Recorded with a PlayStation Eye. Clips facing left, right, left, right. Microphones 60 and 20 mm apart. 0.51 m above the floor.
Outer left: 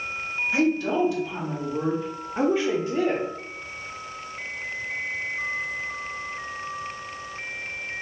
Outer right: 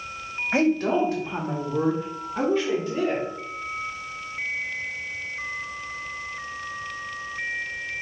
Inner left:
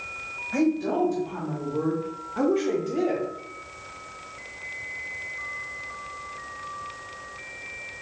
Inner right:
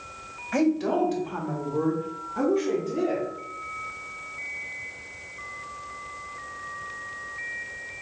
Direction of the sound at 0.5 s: 55° right (ahead or behind).